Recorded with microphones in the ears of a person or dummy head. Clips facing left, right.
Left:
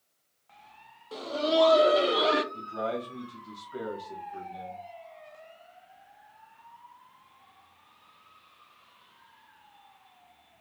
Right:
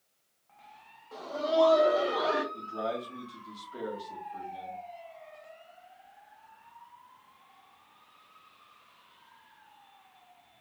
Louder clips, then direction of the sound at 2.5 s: Left 2 dB; 20° left (ahead or behind).